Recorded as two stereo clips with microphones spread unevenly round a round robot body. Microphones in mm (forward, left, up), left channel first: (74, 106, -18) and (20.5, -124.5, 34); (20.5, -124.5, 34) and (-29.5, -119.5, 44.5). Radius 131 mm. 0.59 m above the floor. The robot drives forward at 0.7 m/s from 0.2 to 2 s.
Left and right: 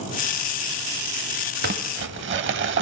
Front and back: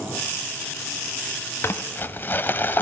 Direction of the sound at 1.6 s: 50° right.